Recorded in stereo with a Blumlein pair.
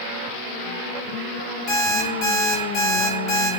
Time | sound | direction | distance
1.7 | an alarm clock | 10° left | 1.8 m